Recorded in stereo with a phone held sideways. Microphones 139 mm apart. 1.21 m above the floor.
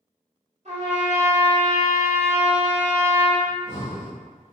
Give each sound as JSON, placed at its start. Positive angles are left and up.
{"t": 0.7, "sound": "a trumpet", "side_deg": -55, "distance_m": 1.4}
{"t": 3.5, "sound": "breathing", "side_deg": 55, "distance_m": 0.8}